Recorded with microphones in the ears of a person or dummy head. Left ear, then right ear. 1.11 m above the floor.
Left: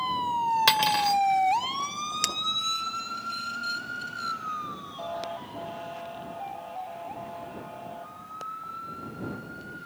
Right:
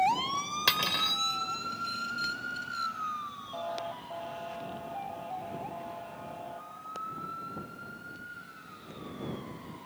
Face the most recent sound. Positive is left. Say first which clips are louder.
# left 6 dB
turn(degrees=65)  # may be behind; listen again after turning